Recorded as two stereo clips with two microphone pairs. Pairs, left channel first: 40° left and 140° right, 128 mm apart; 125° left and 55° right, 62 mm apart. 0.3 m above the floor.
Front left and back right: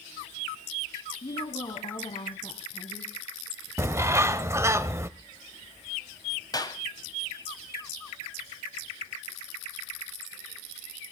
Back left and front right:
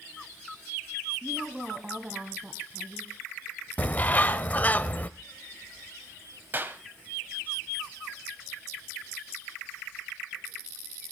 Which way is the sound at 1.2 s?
15° left.